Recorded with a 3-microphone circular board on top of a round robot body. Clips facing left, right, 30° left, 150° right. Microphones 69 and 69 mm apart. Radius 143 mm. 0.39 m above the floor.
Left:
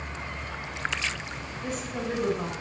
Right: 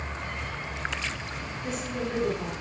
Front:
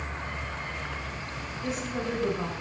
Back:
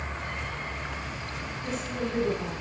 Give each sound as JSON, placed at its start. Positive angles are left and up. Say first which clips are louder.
{"t": 1.6, "sound": "a woman speaking", "louder": "even, front 1 dB", "azimuth_deg": 50, "distance_m": 5.5}